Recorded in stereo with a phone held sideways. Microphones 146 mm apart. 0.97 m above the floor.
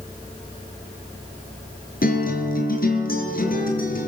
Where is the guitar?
80° left, 5.5 m.